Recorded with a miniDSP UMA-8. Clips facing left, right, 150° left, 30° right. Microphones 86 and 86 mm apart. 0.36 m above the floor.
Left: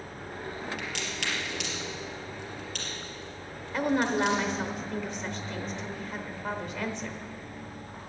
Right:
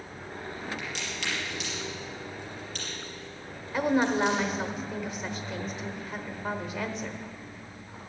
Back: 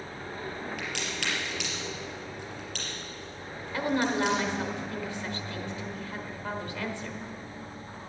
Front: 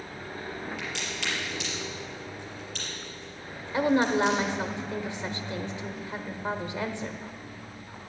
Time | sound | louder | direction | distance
0.8 | a crack | left 1 dB, even | 120° left | 4 m
3.7 | a woman speaking | right 1 dB, front 4 dB | 10° right | 1.0 m